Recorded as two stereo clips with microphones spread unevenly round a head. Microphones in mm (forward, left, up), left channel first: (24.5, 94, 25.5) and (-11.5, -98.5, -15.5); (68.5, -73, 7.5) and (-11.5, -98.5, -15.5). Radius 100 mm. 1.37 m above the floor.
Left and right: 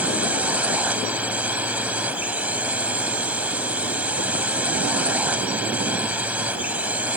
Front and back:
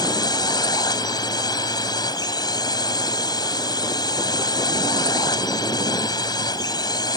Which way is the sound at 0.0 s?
20° right.